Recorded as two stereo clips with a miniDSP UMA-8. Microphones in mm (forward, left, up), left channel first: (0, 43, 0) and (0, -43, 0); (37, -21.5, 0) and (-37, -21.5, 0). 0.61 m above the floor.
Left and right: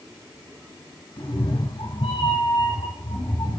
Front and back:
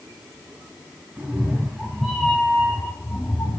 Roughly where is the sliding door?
I don't hear a sliding door.